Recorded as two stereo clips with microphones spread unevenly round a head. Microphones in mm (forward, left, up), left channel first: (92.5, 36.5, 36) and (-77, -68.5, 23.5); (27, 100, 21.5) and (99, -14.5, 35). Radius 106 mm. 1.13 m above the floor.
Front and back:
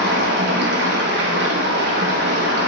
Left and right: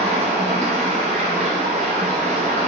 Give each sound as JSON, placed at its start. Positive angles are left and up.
{"t": 0.0, "sound": "running water", "azimuth_deg": -115, "distance_m": 0.7}